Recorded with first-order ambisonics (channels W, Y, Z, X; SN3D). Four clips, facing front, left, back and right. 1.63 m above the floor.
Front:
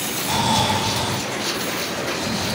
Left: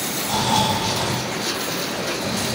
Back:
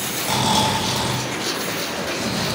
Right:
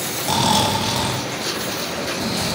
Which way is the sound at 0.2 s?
110° right.